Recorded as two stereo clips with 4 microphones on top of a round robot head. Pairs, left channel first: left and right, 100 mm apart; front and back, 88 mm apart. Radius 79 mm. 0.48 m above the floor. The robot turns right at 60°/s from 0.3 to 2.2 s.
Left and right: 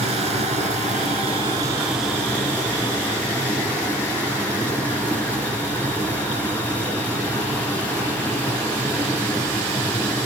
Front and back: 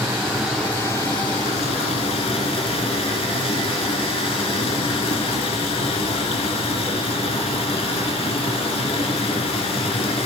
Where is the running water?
105° right, 3 m; by 10.3 s 10° left, 3 m.